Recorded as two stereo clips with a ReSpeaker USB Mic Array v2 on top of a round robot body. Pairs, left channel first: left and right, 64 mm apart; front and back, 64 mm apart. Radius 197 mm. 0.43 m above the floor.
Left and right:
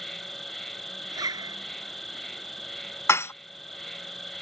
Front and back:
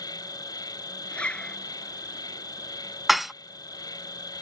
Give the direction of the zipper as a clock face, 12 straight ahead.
2 o'clock.